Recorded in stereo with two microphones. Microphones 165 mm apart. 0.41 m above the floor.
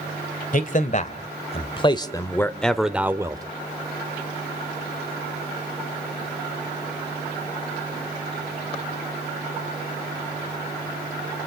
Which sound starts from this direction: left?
A man speaking, at 0.5 s.